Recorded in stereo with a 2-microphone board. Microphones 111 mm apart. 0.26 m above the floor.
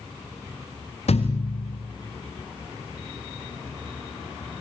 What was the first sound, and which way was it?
A thud, 70° left (ahead or behind).